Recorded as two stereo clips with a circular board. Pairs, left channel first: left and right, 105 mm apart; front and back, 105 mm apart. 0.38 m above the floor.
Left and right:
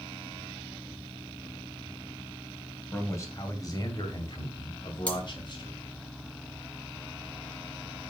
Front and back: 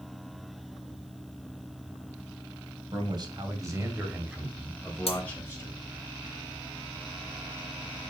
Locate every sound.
2.9 s a man speaking: 155° left, 2.5 m; by 5.8 s 60° left, 2.5 m
5.1 s cutlery clinking: 10° left, 1.7 m